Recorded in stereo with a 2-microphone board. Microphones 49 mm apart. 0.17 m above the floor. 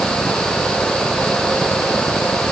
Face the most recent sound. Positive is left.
No sound to turn to.